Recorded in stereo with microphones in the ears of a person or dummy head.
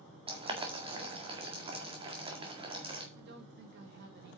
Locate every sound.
0.3 s boiling: 25° right (ahead or behind), 1.9 m
3.1 s a woman speaking: 60° right (ahead or behind), 2.0 m